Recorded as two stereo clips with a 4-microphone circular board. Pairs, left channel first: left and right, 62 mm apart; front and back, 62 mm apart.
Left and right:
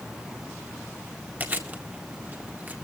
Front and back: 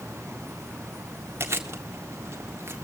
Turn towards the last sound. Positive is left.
turn(degrees=-140)